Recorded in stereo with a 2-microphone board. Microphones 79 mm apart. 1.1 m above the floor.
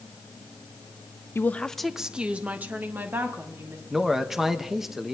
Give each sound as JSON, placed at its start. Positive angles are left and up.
{"t": 1.4, "sound": "a woman speaking", "side_deg": 35, "distance_m": 0.6}
{"t": 3.9, "sound": "a man speaking", "side_deg": -5, "distance_m": 1.0}